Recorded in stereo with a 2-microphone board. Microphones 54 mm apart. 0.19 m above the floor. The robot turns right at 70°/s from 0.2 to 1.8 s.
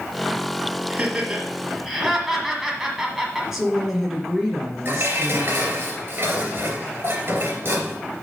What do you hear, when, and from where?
0.9 s laughter: 25° right (ahead or behind), 1.6 m; by 3.4 s 5° right (ahead or behind), 1.6 m
3.5 s a woman speaking: 10° right (ahead or behind), 2.5 m
4.8 s dishes clattering: 50° right (ahead or behind), 2.5 m